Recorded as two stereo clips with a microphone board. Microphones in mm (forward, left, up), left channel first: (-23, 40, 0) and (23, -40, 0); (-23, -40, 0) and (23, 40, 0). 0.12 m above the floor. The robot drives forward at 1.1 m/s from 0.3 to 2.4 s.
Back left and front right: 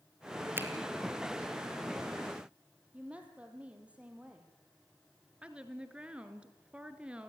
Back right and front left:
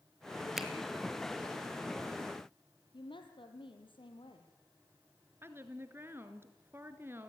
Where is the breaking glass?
I don't hear breaking glass.